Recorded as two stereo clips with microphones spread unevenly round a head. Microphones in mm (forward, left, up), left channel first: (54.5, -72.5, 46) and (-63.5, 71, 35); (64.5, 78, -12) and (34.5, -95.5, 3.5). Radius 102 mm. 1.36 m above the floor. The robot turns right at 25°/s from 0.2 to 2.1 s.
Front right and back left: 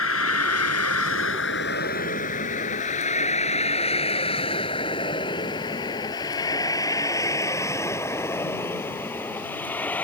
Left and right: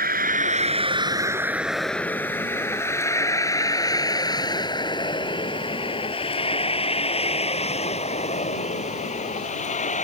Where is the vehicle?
65° right; by 10.0 s 30° left.